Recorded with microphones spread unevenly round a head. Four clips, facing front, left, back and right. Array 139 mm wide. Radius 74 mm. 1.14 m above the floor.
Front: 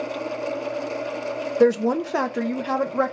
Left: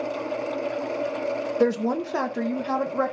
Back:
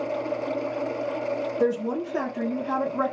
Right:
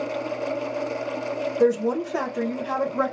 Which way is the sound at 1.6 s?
10° left.